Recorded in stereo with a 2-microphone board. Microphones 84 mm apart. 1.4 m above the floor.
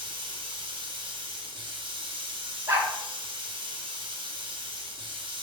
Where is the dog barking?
35° right (ahead or behind), 1.2 m.